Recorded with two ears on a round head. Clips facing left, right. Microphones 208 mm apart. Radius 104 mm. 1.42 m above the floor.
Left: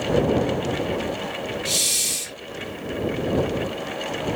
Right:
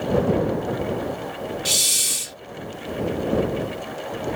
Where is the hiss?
20° right (ahead or behind).